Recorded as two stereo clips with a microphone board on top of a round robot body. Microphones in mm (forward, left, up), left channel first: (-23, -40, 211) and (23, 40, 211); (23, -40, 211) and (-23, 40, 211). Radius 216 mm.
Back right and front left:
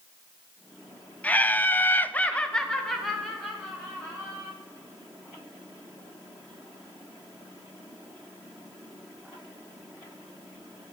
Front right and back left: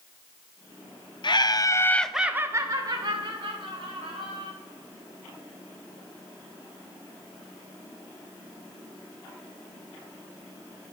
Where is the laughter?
50° right, 0.8 m; by 4.5 s 150° left, 1.7 m.